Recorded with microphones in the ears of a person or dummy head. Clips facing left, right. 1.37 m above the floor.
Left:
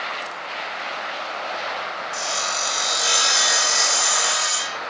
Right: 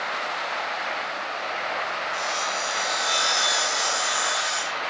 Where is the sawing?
50° left (ahead or behind), 1.9 m.